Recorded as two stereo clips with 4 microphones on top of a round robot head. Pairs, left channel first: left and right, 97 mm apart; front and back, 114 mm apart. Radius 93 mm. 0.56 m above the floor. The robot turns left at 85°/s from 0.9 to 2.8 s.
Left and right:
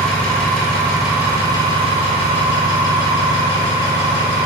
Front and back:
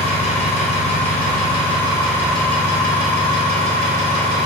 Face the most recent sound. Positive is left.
turn(degrees=-155)